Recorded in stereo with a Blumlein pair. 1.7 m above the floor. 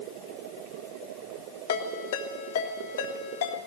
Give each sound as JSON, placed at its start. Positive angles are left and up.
{"t": 1.7, "sound": "a ringtone", "azimuth_deg": 60, "distance_m": 3.0}